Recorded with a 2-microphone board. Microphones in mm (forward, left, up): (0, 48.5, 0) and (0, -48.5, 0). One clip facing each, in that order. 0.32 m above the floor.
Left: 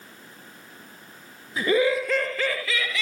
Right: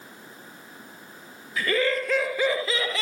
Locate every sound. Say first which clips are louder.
1.6 s laughter: left 3 dB; 25° left (ahead or behind); by 3.0 s 40° right (ahead or behind)